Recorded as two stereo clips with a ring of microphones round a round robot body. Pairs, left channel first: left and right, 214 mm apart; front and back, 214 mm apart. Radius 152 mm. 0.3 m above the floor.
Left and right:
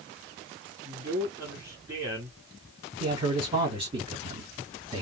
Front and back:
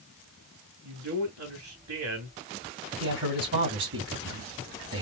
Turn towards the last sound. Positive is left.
turn(degrees=-155)